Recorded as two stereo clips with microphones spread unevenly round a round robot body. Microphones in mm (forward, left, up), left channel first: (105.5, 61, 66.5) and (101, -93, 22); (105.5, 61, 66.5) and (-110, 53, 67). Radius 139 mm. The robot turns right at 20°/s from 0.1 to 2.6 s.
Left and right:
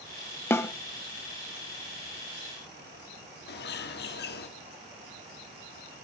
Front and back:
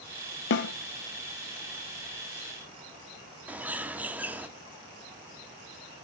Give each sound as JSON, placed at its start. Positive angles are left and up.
{"t": 0.5, "sound": "a snare drum", "azimuth_deg": 25, "distance_m": 0.7}
{"t": 3.5, "sound": "a bird", "azimuth_deg": 100, "distance_m": 1.5}